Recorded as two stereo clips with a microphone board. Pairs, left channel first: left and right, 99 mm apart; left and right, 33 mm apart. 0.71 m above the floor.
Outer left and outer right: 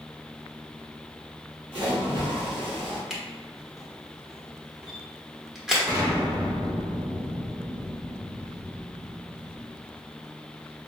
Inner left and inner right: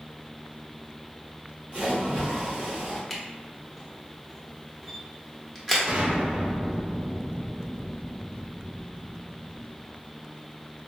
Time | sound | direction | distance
1.7 | a splash | 55° right (ahead or behind) | 1.9 m
3.1 | a camera shutter | 5° right (ahead or behind) | 1.0 m
5.9 | an explosion | 40° right (ahead or behind) | 1.6 m